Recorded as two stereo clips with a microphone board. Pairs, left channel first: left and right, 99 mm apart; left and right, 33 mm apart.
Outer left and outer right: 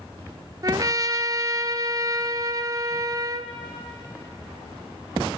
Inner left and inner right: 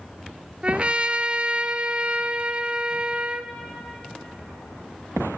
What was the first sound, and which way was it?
A trumpet, 40° right (ahead or behind).